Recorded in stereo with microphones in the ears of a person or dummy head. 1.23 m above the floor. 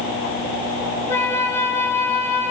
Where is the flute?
20° left (ahead or behind), 3.5 m.